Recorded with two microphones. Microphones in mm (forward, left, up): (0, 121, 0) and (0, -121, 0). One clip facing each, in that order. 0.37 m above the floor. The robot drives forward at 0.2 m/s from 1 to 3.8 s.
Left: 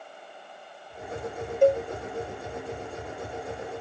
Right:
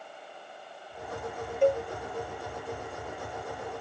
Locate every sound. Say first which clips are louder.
1.6 s a cowbell: left 4 dB; 45° left (ahead or behind), 0.6 m; by 1.8 s 40° left (ahead or behind), 0.6 m